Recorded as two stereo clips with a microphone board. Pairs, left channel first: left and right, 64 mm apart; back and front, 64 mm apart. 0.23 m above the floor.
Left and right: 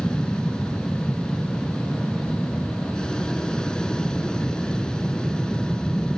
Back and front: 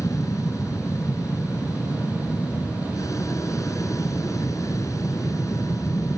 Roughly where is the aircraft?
Behind.